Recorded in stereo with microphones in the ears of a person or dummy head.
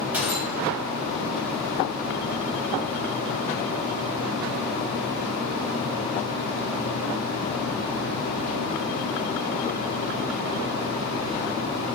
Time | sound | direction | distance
0.1 | a gunshot | 15° right (ahead or behind) | 0.9 m